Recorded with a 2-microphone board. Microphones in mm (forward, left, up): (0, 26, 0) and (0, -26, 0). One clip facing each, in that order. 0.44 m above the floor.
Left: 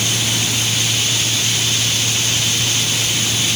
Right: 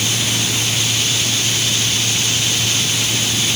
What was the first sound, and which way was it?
Only background noise.